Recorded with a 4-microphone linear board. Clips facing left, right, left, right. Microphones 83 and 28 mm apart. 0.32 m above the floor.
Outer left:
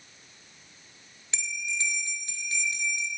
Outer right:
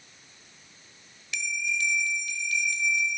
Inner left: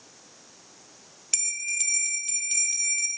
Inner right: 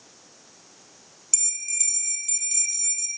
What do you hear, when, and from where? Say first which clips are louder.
1.3 s a bell: outer right 3 dB, inner left 3 dB; 30° left (ahead or behind), 1.1 m